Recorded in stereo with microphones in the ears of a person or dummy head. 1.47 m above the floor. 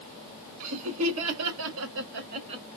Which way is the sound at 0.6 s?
75° right (ahead or behind).